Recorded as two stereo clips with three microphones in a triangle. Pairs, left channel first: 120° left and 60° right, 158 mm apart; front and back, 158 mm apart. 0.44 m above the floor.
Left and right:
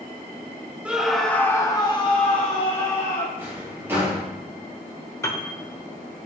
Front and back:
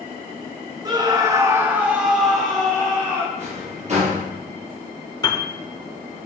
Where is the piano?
55° left, 0.9 m.